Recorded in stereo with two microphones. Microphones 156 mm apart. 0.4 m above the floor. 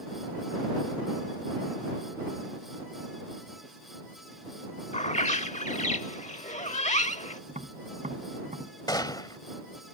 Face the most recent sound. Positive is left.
turn(degrees=25)  # may be behind; listen again after turning